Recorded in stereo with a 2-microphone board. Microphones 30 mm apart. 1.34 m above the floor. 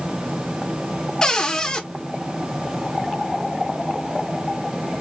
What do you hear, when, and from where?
1.2 s a cupboard door: 20° left (ahead or behind), 0.9 m